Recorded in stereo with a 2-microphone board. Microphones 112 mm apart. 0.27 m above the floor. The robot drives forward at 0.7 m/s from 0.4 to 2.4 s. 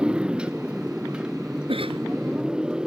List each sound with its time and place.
0.0 s a motorcycle: 10° right (ahead or behind)
1.7 s a cough: 55° right (ahead or behind)